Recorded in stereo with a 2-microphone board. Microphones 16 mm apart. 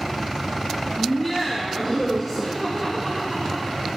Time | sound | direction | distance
1.0 | laughter | 10° right (ahead or behind) | 1.6 m